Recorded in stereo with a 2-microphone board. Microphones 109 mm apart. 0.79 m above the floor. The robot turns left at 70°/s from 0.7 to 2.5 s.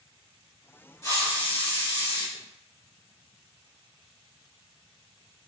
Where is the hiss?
155° left, 1.1 m; by 2.3 s 65° left, 1.1 m.